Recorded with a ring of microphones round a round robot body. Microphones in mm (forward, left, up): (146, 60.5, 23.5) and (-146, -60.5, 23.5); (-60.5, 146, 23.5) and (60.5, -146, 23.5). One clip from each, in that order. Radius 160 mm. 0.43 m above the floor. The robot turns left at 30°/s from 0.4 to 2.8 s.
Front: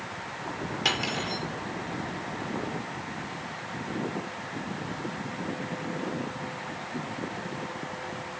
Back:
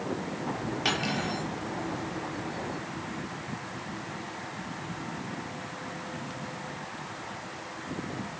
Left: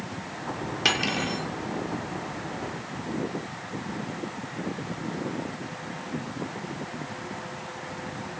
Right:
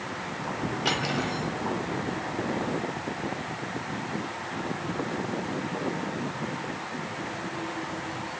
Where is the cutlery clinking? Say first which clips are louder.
Front 2 dB, left 4 dB; 100° left, 6 m; by 1.5 s 80° left, 6 m.